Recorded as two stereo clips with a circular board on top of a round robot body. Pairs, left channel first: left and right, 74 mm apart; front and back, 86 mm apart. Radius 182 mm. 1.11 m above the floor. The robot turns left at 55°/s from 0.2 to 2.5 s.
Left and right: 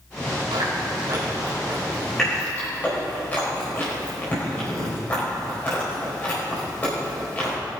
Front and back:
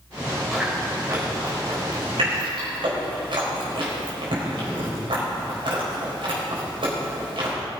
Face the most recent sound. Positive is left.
turn(degrees=160)